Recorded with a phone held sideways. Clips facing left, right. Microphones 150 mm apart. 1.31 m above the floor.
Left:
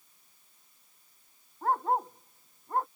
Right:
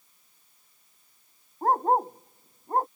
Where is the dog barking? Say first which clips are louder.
Right 5 dB; 40° right (ahead or behind).